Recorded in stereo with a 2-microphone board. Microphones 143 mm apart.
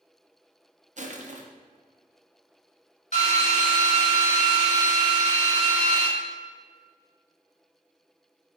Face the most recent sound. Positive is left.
turn(degrees=55)  # may be behind; listen again after turning